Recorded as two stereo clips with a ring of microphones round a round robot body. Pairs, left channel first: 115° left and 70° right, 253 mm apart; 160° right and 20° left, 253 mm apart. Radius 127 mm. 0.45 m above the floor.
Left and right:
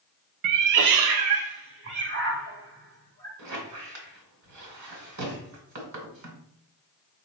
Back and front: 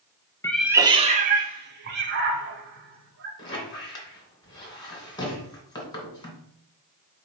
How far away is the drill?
I don't hear a drill.